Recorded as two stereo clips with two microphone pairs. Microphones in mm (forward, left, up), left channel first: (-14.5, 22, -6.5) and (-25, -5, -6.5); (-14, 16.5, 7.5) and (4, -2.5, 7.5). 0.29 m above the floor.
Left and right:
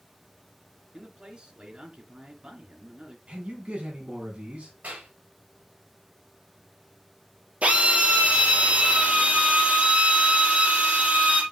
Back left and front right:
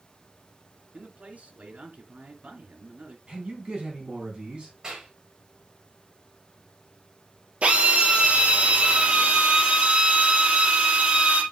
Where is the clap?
110° right, 5.5 m.